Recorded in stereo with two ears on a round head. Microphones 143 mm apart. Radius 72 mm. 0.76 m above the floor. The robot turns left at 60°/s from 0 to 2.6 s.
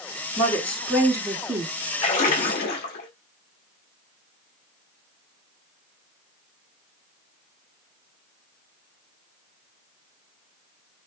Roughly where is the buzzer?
I don't hear a buzzer.